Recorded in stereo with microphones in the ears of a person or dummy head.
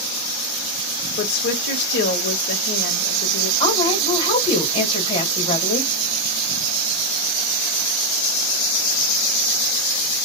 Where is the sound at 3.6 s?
30° left (ahead or behind), 1.9 m.